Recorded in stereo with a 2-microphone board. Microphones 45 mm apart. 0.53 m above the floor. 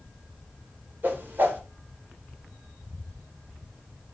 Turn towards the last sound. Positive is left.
turn(degrees=-50)  # may be behind; listen again after turning